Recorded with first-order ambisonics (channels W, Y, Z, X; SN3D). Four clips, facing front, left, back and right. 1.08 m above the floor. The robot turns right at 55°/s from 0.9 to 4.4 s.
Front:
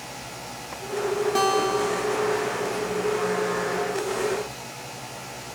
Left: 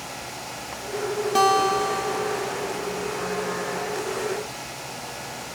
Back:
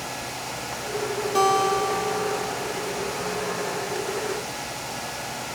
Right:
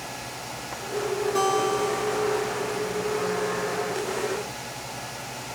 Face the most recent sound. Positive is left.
turn(degrees=-110)